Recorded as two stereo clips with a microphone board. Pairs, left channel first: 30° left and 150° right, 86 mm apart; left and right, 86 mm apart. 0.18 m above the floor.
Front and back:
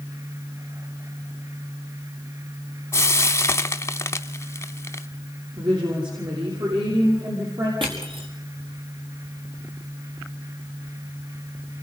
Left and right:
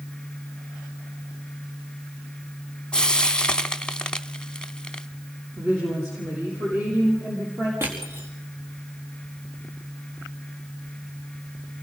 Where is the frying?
20° left, 0.8 m.